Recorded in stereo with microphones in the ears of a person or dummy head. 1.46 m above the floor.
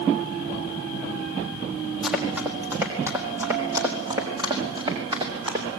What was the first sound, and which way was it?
Running footsteps, 5° right (ahead or behind).